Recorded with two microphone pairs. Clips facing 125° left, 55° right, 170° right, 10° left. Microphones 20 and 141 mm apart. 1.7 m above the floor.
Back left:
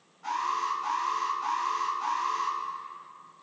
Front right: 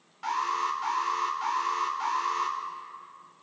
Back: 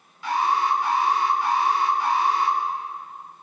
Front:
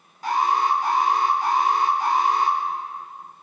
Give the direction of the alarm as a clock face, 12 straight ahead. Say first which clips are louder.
Front right 1 dB, front 1 dB; 1 o'clock.